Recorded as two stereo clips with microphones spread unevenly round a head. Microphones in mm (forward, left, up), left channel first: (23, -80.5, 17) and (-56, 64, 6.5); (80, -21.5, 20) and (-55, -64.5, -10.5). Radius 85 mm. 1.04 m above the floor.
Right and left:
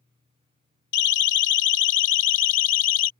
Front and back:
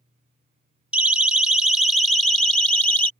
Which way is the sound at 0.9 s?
80° right.